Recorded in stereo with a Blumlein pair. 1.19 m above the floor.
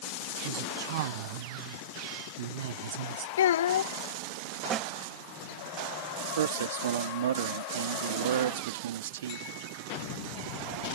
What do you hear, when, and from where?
0.4 s a woman speaking: 55° right; by 3.3 s 60° right
3.4 s a child speaking: 60° left
4.7 s a snare drum: 25° right
6.4 s a man speaking: 60° right